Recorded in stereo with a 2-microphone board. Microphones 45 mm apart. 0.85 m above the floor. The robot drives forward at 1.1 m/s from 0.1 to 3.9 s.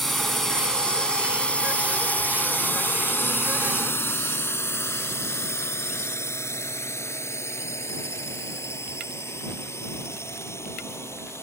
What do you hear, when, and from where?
0.0 s a drone: 5° left (ahead or behind); by 11.4 s 75° left (ahead or behind)